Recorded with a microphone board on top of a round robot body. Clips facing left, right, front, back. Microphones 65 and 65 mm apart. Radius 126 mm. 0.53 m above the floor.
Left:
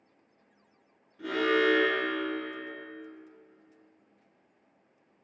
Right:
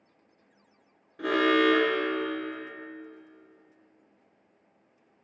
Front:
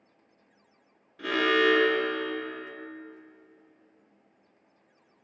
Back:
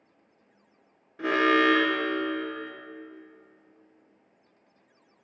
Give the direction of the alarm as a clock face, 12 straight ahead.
4 o'clock.